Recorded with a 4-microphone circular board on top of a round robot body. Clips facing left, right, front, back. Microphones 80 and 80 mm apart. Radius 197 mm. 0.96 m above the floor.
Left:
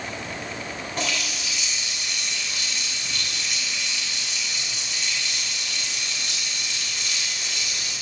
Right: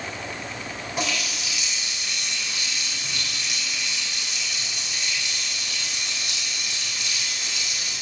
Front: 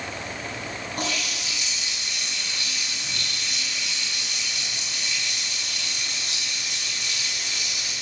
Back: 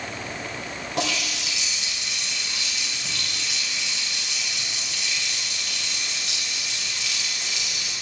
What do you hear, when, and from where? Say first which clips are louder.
1.0 s a running tap: right 1 dB, back 4 dB; 170° right, 3 m